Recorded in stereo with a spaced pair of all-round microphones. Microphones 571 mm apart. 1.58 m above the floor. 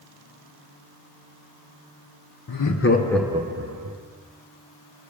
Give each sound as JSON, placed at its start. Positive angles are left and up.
{"t": 2.5, "sound": "laughter", "side_deg": 40, "distance_m": 0.6}